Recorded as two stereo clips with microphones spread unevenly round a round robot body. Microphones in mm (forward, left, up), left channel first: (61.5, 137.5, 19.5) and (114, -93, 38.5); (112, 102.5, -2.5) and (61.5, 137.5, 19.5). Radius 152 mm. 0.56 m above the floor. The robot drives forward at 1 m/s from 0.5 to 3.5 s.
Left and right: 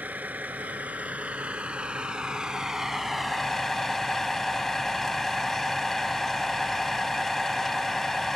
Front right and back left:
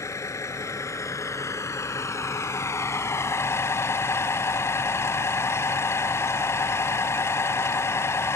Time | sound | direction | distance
0.0 | a vehicle | 5° left | ?